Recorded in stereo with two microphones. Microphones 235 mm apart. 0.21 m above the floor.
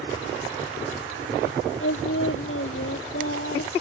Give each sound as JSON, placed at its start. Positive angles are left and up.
{"t": 1.8, "sound": "singing", "side_deg": 65}